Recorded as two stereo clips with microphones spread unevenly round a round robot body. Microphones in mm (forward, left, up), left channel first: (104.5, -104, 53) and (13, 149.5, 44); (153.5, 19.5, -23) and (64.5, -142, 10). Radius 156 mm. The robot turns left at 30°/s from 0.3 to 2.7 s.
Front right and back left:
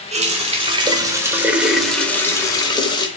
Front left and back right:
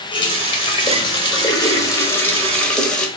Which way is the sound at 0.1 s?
70° left.